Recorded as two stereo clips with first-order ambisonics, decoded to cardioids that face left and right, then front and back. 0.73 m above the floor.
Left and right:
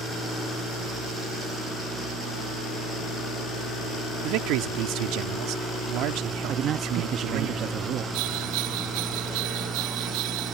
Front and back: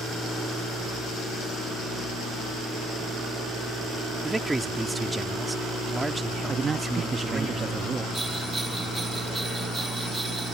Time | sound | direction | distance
4.2 | a man speaking | 100° right | ?
6.5 | a man speaking | 120° right | ?
8.1 | a bell | 95° right | ?